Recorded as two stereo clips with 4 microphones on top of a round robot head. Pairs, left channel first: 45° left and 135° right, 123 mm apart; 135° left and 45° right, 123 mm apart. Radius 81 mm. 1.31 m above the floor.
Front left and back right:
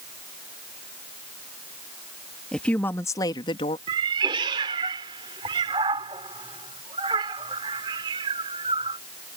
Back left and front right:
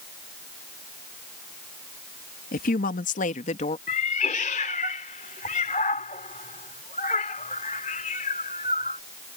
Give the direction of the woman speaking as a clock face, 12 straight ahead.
8 o'clock.